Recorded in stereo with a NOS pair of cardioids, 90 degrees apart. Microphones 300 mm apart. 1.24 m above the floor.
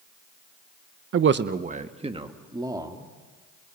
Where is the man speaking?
45° right, 1.0 m; by 3.1 s 10° right, 3.5 m.